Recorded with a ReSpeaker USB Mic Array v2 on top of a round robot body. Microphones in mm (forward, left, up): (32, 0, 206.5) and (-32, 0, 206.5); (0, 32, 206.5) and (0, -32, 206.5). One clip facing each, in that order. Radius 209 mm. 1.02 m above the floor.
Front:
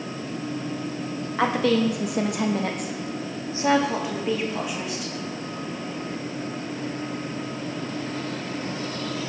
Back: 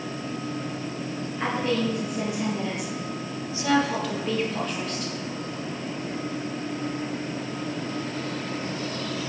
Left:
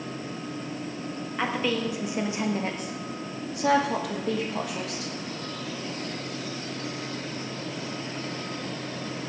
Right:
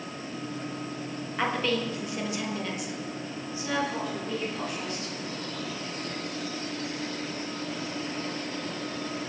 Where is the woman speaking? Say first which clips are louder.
Front 5 dB, even; straight ahead, 1.7 m; by 5.1 s 85° left, 2.5 m.